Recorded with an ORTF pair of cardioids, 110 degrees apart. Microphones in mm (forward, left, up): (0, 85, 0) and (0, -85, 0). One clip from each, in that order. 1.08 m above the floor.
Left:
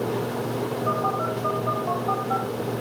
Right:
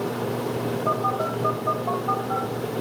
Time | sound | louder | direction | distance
0.9 | a phone buzzing | right 1 dB | 5° right | 6 m